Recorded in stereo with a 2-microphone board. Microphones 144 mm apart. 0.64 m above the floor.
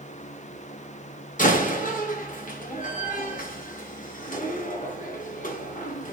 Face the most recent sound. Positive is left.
turn(degrees=65)  # may be behind; listen again after turning